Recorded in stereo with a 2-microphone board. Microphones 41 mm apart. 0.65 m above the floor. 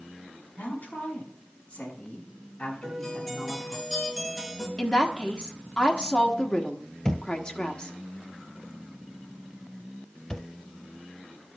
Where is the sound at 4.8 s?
25° left (ahead or behind), 1.3 m.